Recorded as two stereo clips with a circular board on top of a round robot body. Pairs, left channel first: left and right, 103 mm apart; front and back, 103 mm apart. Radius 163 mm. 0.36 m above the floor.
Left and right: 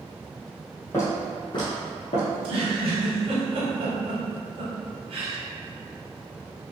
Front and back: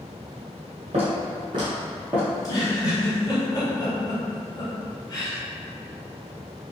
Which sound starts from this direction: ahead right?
A giggle, at 2.3 s.